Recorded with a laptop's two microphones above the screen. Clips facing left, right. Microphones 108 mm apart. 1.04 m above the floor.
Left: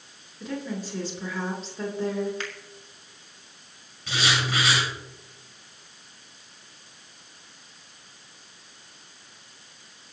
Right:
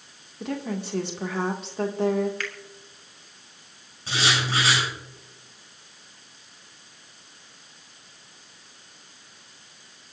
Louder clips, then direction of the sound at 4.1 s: Right 1 dB; 30° right (ahead or behind).